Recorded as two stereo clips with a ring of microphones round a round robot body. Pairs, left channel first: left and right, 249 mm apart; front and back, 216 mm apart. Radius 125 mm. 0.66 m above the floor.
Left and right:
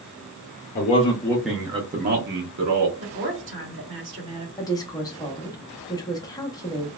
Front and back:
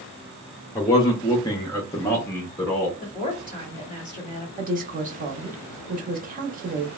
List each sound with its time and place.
0.8 s a man speaking: 65° left, 0.6 m; by 2.9 s 85° right, 0.9 m
3.0 s a woman speaking: 110° right, 1.6 m
4.6 s a woman speaking: 160° left, 0.8 m